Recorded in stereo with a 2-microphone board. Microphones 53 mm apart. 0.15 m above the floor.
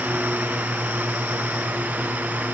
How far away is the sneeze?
I don't hear a sneeze.